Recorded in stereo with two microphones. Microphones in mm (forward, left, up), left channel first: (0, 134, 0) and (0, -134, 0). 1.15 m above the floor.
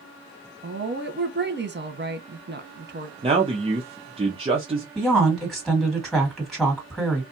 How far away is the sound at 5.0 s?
About 1.9 m.